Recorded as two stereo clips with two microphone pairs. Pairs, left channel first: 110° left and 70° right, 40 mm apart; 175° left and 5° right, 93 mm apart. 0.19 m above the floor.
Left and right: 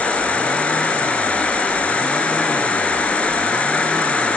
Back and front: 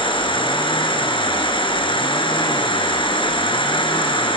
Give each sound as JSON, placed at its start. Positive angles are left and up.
{"t": 0.0, "sound": "an insect", "azimuth_deg": 165, "distance_m": 5.0}